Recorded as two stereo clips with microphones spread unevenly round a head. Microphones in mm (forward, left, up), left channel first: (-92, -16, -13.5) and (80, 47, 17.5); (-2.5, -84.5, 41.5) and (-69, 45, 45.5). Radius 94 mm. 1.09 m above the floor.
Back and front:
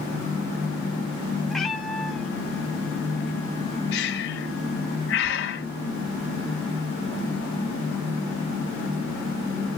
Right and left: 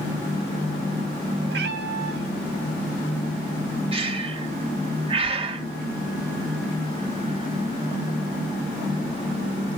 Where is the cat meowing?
105° left, 1.4 m.